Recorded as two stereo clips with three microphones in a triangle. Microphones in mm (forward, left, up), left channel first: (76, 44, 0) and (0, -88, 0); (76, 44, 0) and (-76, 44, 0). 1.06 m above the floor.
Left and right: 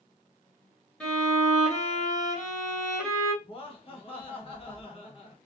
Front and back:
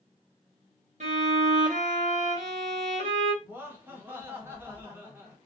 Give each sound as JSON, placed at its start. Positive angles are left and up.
{"t": 1.0, "sound": "a violin", "azimuth_deg": 145, "distance_m": 1.1}
{"t": 3.4, "sound": "laughter", "azimuth_deg": 105, "distance_m": 1.0}